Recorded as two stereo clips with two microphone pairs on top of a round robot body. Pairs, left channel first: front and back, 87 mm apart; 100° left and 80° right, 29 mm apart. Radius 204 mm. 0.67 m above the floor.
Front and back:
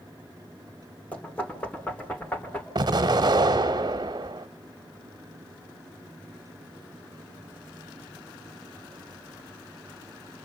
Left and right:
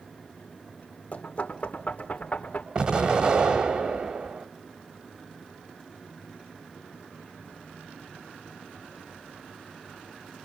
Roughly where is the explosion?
Behind right.